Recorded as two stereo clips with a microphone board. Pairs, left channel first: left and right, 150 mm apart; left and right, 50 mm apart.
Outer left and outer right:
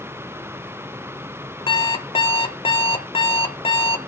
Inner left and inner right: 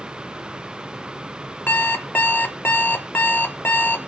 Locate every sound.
1.7 s an alarm clock: 35° left (ahead or behind), 0.8 m